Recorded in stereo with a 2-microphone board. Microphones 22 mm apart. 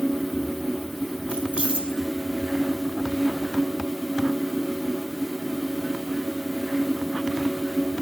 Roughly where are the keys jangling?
Right.